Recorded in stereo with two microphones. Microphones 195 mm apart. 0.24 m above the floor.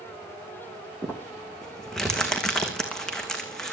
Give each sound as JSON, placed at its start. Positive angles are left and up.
{"t": 1.0, "sound": "crumpling", "side_deg": 0, "distance_m": 3.5}